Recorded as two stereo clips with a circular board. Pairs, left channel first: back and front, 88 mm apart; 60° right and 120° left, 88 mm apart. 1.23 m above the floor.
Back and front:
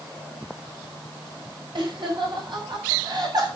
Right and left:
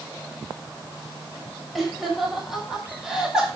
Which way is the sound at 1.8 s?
30° left.